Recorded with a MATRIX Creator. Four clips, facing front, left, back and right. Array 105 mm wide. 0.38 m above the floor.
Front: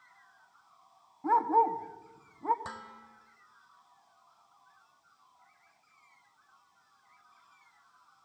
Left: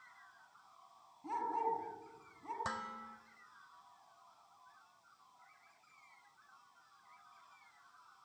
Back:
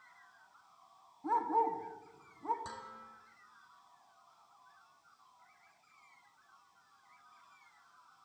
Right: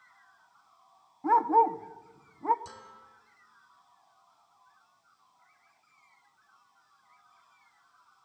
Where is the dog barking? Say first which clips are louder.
Right 15 dB, front 6 dB; 65° right, 1.2 m.